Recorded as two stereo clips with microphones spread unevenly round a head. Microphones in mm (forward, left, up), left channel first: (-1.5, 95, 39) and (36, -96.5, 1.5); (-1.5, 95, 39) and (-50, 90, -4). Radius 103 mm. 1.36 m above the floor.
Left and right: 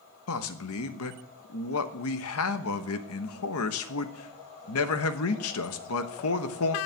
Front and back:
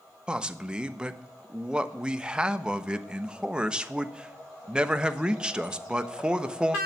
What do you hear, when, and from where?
0.3 s a man speaking: 105° left, 1.2 m